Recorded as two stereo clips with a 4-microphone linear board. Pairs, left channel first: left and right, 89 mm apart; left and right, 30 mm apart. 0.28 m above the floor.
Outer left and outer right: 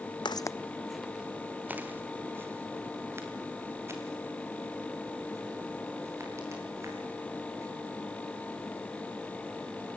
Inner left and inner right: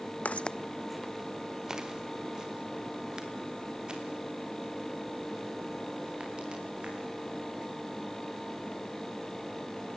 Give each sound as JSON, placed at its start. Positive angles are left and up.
{"t": 0.2, "sound": "footsteps", "side_deg": 65, "distance_m": 0.7}